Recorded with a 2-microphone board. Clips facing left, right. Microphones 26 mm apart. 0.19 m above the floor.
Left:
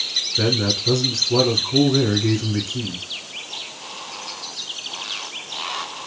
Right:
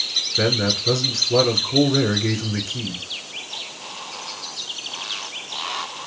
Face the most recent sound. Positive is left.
turn(degrees=-20)  # may be behind; listen again after turning